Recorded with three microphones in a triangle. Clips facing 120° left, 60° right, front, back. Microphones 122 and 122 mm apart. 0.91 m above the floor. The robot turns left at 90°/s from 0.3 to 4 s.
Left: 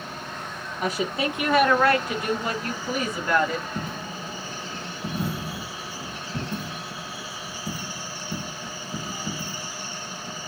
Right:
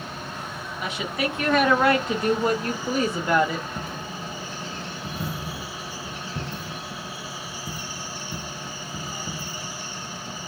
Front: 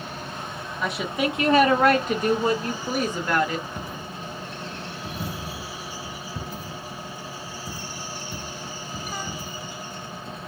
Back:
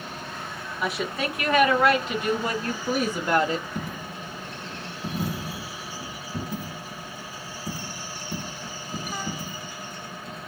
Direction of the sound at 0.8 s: 105° left.